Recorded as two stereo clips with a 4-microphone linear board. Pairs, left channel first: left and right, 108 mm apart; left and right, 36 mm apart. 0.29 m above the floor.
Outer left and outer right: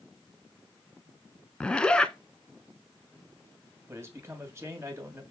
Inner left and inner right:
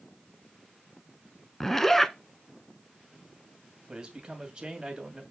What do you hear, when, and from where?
1.6 s a zipper: 10° left (ahead or behind), 0.5 m
3.9 s a man speaking: 25° right (ahead or behind), 2 m